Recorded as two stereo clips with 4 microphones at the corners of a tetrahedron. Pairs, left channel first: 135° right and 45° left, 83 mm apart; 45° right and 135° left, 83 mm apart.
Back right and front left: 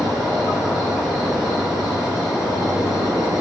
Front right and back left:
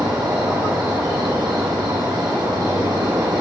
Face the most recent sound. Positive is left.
turn(degrees=130)